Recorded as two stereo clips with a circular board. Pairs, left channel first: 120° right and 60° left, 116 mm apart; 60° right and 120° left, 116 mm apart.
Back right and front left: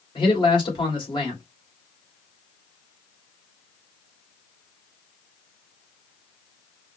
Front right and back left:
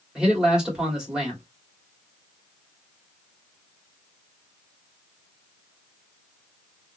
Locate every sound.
0.1 s a man speaking: 155° right, 2 m